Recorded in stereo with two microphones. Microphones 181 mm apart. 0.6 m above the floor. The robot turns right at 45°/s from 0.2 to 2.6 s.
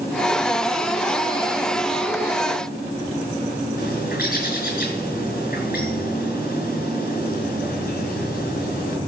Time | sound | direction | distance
3.8 | a bird | 55° left (ahead or behind) | 6.5 m